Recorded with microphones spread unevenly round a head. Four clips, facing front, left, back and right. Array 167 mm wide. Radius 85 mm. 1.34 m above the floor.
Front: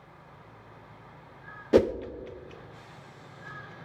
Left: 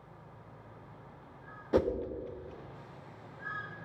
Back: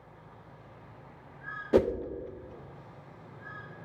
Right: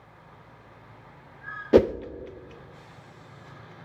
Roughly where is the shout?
I don't hear a shout.